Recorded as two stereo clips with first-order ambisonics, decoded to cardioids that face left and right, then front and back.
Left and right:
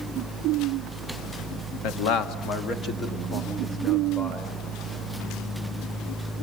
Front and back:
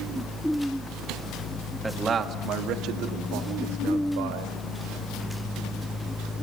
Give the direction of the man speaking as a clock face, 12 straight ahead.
9 o'clock.